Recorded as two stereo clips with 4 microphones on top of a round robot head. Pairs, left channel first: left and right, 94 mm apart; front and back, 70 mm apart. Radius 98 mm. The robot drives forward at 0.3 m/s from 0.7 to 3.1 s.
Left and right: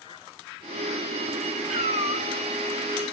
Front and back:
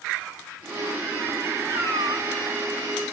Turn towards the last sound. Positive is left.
turn(degrees=-160)